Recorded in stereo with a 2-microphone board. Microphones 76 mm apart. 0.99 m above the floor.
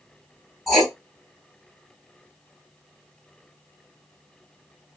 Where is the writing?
Centre (ahead or behind), 2.5 m.